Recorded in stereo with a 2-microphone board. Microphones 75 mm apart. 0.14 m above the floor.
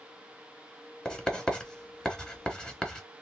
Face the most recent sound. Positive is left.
turn(degrees=10)  # may be behind; listen again after turning